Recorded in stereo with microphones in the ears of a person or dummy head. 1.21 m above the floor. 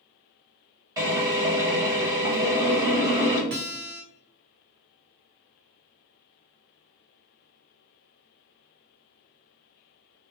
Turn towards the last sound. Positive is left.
turn(degrees=-60)  # may be behind; listen again after turning